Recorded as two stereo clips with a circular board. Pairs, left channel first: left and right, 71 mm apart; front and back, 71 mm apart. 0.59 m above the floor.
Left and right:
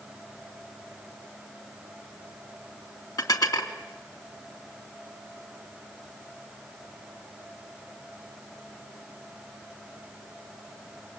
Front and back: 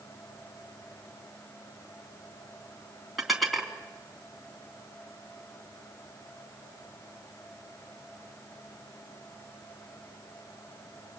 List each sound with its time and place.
3.2 s dishes clattering: 90° left, 3.5 m